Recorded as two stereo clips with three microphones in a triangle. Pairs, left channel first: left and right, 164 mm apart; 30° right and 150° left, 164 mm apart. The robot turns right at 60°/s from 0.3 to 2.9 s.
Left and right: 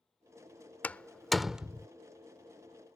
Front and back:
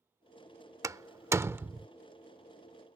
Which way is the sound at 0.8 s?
150° left.